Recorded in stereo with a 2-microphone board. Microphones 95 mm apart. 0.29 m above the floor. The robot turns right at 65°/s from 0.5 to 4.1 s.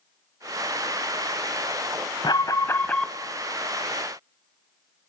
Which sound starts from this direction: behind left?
An alarm, at 2.2 s.